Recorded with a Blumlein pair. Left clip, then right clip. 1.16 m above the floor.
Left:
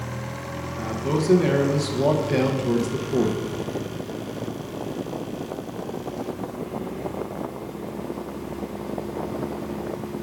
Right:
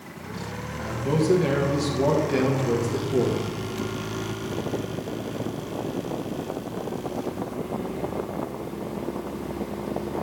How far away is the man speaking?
About 0.9 m.